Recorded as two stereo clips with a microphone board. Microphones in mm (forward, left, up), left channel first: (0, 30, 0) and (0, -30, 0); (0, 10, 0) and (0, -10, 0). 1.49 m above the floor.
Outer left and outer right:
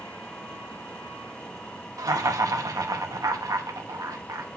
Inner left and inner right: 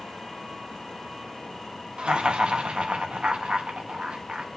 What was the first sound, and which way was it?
Laughter, 80° right.